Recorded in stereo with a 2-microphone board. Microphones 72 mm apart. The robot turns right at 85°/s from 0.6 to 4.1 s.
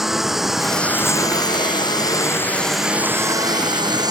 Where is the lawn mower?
5° right; by 4.1 s 70° right.